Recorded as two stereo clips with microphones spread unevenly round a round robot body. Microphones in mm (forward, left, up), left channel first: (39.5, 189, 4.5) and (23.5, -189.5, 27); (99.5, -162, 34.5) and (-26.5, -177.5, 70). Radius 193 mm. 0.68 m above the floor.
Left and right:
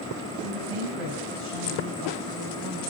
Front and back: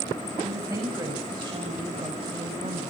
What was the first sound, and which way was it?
A woman speaking, 105° right.